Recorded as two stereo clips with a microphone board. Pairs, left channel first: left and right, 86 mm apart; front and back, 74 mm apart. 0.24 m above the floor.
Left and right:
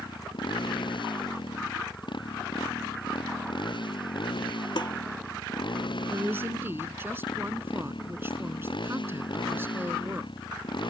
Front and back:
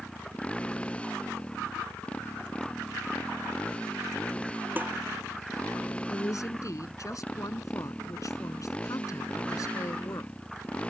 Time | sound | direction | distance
0.0 | a motorcycle | 75° left | ?
4.8 | dishes clattering | 115° left | ?
6.1 | a woman speaking | 30° right | ?